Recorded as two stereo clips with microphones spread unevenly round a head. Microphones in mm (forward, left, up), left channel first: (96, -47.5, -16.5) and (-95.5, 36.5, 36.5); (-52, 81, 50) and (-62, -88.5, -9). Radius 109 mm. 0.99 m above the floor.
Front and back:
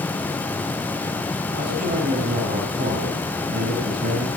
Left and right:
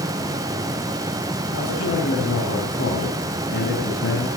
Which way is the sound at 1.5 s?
100° left.